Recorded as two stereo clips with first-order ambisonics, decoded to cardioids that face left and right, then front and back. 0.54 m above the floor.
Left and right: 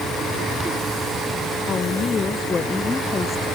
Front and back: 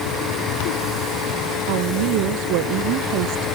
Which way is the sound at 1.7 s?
160° left.